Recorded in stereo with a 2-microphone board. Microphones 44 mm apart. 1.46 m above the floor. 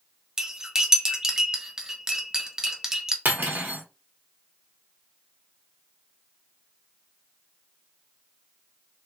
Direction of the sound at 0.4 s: 15° right (ahead or behind).